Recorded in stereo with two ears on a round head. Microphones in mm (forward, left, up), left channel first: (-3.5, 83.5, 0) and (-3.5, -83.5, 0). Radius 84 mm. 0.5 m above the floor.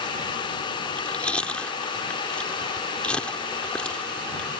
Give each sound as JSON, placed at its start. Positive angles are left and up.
{"t": 0.8, "sound": "chewing", "side_deg": 5}